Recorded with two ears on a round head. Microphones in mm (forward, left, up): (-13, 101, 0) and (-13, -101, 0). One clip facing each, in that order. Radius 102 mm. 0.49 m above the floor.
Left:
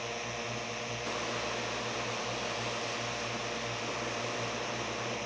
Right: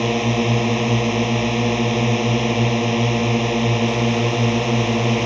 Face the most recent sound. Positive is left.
turn(degrees=-80)